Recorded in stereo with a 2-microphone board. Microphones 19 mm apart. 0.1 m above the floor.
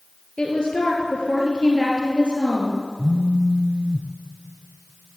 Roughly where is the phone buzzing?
Left.